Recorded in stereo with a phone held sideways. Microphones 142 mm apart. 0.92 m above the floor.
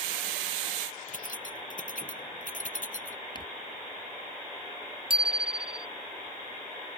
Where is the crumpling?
35° left (ahead or behind).